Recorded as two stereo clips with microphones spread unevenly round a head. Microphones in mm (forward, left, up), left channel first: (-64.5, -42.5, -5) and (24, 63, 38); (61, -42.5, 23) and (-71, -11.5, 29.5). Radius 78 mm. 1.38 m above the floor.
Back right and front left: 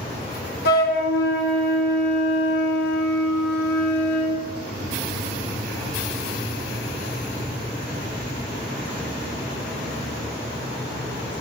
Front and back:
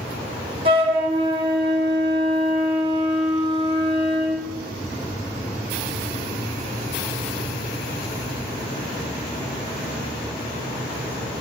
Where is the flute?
145° right, 2 m.